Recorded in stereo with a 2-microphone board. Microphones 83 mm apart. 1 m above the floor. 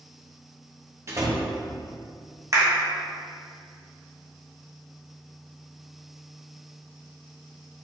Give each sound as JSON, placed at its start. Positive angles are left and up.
{"t": 1.1, "sound": "a door slam", "side_deg": -35, "distance_m": 1.0}
{"t": 2.5, "sound": "a clap", "side_deg": -40, "distance_m": 1.1}